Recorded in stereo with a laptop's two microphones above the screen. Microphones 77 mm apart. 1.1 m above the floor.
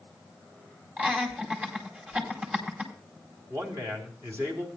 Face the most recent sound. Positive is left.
turn(degrees=-40)  # may be behind; listen again after turning